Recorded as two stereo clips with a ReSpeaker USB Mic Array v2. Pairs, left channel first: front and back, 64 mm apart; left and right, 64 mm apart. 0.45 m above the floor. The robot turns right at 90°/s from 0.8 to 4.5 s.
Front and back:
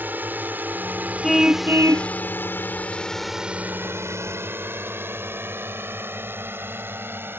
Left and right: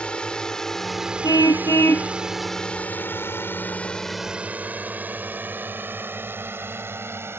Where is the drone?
150° left; by 7.4 s 130° right.